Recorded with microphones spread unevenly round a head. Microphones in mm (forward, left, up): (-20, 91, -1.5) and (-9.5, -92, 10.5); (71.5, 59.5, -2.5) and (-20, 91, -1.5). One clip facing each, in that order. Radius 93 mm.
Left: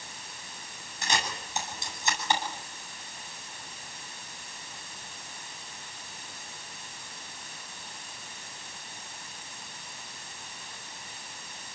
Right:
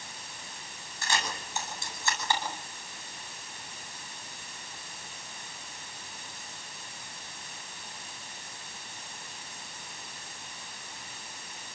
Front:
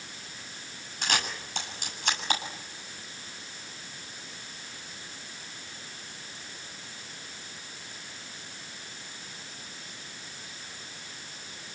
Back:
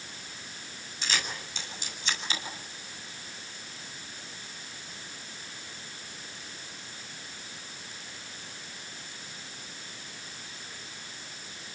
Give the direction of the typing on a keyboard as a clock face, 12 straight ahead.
I don't hear typing on a keyboard.